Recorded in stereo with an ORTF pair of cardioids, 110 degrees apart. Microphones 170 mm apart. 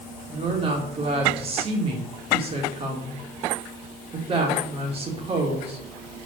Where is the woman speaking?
35° right, 2.5 m.